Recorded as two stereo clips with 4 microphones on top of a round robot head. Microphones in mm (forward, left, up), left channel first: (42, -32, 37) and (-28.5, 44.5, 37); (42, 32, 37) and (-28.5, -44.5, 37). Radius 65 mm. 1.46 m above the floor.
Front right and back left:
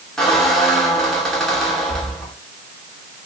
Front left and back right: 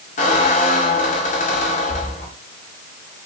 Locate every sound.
0.2 s a squeak: 40° left, 3 m